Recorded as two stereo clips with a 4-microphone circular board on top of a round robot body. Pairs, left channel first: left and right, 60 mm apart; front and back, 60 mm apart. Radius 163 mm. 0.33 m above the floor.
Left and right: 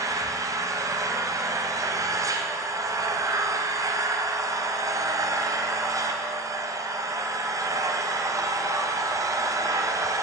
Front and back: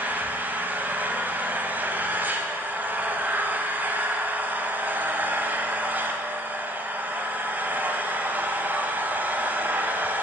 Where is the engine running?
120° right, 1.0 m.